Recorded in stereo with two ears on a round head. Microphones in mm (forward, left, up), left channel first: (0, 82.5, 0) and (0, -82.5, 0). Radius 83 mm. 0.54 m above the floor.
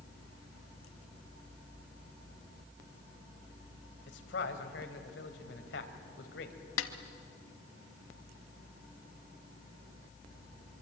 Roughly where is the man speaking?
Left.